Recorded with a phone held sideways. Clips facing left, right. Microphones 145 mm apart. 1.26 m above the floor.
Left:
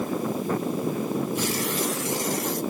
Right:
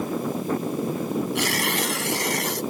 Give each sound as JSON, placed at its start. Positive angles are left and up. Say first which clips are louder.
{"t": 1.4, "sound": "tearing paper", "louder": "right 1 dB", "side_deg": -75}